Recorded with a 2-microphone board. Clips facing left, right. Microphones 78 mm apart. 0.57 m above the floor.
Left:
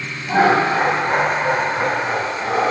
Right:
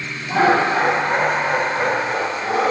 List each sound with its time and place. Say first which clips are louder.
0.3 s laughter: left 1 dB; 35° left (ahead or behind), 2.5 m; by 2.7 s 40° left (ahead or behind), 4 m